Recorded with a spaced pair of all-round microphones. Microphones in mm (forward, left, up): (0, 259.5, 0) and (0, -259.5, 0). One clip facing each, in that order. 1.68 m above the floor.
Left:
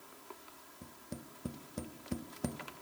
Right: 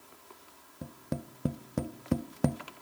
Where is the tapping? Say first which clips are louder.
Right 10 dB; 75° right (ahead or behind), 0.6 m.